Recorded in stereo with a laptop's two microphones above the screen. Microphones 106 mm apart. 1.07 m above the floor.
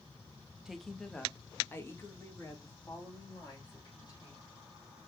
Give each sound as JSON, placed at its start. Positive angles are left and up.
{"t": 0.7, "sound": "a woman speaking", "side_deg": -5, "distance_m": 1.0}